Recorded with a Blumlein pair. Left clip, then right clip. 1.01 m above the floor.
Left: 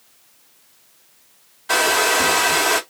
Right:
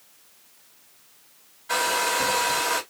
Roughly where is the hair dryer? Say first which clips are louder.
Left 7 dB; ahead left.